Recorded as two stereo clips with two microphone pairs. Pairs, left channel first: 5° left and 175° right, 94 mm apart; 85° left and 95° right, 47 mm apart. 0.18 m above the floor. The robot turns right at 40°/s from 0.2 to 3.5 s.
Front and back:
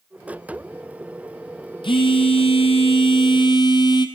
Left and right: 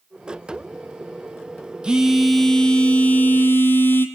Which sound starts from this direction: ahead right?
A phone buzzing, at 1.8 s.